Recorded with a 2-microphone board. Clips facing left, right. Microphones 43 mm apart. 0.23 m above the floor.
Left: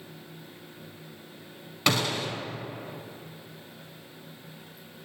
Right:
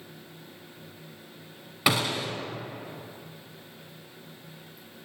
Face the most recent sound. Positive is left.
turn(degrees=-10)  # may be behind; listen again after turning